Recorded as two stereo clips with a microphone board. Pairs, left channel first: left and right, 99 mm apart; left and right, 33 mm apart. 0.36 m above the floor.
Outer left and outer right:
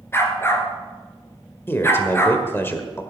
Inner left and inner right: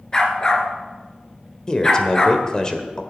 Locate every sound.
0.1 s a dog barking: 25° left (ahead or behind), 1.7 m
1.7 s a man speaking: 20° left (ahead or behind), 1.4 m